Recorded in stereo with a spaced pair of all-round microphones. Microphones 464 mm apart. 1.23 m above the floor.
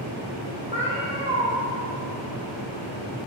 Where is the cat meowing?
15° right (ahead or behind), 3 m.